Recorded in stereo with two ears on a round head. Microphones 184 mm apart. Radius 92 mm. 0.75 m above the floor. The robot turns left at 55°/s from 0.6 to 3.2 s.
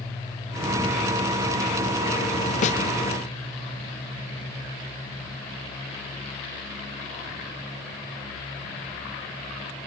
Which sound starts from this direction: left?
A snare drum, at 2.6 s.